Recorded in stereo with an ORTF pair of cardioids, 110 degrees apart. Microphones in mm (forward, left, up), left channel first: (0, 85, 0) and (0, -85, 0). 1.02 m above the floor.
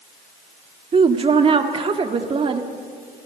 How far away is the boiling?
No boiling in this recording.